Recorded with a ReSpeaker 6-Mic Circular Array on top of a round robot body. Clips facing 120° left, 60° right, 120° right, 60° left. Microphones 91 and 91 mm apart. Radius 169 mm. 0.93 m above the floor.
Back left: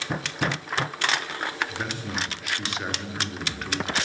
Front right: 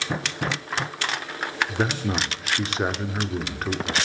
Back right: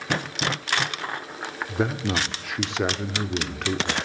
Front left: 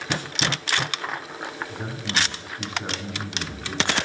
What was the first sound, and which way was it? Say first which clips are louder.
A man speaking: front right 6 dB, back right 9 dB; 110° right.